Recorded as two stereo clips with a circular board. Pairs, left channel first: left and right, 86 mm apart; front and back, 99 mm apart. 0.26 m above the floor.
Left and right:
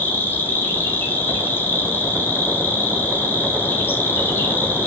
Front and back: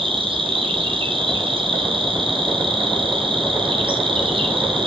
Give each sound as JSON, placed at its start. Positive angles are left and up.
{"t": 0.0, "sound": "an insect", "azimuth_deg": 155, "distance_m": 1.1}